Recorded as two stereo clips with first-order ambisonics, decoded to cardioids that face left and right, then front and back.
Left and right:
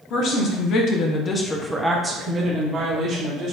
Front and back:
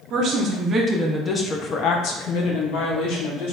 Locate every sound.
0.1 s a woman speaking: 125° left, 0.9 m; by 3.5 s 30° right, 1.4 m